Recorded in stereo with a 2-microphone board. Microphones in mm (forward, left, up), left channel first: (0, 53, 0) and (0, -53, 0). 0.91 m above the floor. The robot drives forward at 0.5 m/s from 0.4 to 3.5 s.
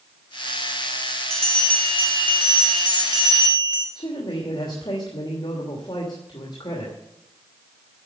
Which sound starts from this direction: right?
A bell, at 1.3 s.